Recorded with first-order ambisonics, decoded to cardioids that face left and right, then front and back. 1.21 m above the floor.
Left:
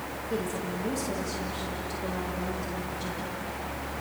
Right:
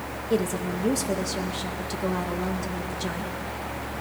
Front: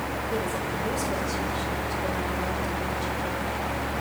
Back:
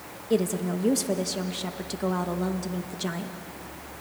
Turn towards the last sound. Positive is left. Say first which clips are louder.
# right 7 dB, back 6 dB
turn(degrees=-150)